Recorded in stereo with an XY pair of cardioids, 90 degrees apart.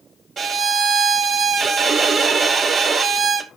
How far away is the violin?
About 0.8 m.